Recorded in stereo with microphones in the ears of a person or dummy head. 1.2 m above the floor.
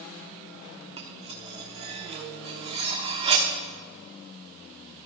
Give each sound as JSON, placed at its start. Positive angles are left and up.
{"t": 1.0, "sound": "cutlery clinking", "side_deg": -35, "distance_m": 1.3}